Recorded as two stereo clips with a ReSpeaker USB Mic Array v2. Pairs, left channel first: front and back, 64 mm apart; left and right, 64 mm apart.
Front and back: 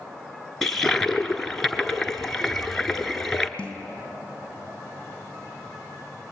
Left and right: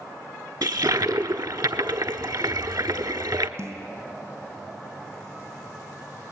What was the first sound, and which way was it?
A toilet flushing, 85° right.